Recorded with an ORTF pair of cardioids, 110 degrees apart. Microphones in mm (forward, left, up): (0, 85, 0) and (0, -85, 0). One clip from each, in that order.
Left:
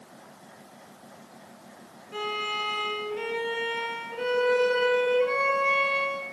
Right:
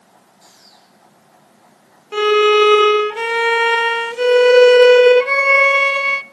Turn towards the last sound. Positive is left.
turn(degrees=-65)